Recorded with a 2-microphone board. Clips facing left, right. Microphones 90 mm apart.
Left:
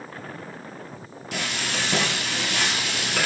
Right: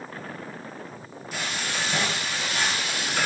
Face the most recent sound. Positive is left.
turn(degrees=70)  # may be behind; listen again after turning